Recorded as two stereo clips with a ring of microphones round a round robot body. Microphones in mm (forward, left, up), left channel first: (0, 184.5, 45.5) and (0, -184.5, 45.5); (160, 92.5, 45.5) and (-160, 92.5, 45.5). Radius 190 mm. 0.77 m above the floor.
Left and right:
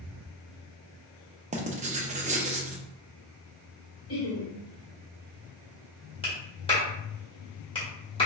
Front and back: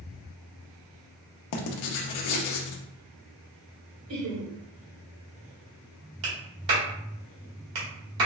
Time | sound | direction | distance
1.5 | writing | 20° right | 0.6 m
4.1 | laughter | 145° left | 1.9 m
6.2 | a clap | 165° left | 1.9 m